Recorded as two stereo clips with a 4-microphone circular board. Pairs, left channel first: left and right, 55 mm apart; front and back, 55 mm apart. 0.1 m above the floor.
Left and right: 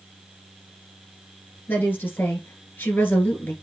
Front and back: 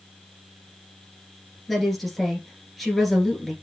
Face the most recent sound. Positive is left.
turn(degrees=90)